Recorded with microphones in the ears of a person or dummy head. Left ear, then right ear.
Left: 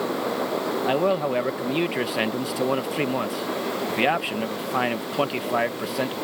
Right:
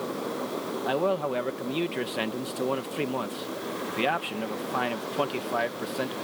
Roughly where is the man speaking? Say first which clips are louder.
Left 3 dB; centre.